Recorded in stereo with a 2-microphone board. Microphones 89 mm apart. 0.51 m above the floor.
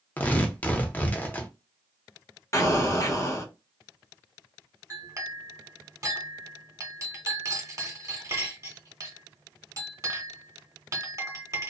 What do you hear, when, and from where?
0.2 s tearing paper: 20° left (ahead or behind), 0.6 m
2.5 s an explosion: 35° left (ahead or behind), 0.7 m
4.9 s a clink: 35° right (ahead or behind), 1.0 m